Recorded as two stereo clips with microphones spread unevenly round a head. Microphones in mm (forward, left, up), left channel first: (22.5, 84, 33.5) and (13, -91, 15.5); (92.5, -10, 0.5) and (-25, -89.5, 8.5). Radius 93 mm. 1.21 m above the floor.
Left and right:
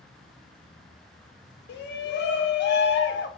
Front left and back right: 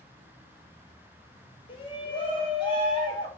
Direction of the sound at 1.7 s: 85° left.